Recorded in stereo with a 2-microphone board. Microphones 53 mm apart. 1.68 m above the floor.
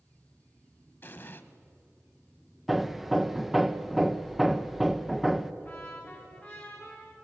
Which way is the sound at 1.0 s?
40° left (ahead or behind).